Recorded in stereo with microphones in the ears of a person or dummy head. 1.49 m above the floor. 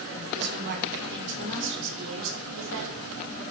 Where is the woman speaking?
60° right (ahead or behind), 5.5 m; by 3.4 s 85° right, 8 m.